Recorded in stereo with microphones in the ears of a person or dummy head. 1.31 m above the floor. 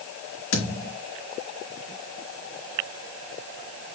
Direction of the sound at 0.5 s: 75° left (ahead or behind).